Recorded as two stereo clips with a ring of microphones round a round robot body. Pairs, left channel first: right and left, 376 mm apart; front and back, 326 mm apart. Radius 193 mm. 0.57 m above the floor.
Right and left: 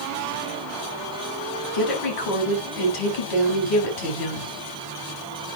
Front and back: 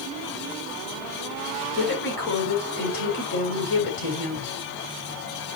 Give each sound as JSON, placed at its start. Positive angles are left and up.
{"t": 1.7, "sound": "a woman speaking", "azimuth_deg": -60, "distance_m": 4.5}